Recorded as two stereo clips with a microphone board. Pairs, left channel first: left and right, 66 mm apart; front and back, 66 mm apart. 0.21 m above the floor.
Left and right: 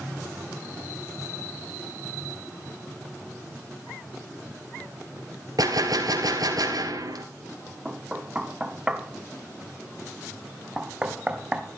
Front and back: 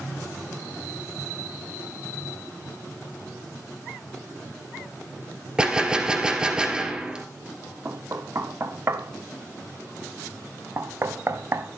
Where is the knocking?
155° right, 1.0 m.